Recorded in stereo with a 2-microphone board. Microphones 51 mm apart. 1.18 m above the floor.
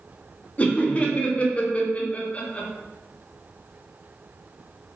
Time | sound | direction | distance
0.6 | laughter | 25° left (ahead or behind) | 0.8 m